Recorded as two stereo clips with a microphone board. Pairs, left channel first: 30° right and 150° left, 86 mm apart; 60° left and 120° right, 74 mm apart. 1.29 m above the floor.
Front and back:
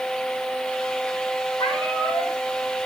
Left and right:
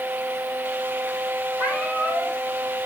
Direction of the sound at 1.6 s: 35° right.